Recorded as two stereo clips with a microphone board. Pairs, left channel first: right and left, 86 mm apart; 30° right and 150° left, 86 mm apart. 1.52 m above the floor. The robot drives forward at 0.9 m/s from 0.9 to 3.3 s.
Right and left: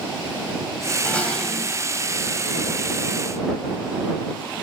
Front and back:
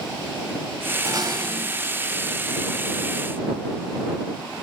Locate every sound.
1.1 s dishes clattering: 165° right, 5.5 m; by 1.9 s 170° right, 6 m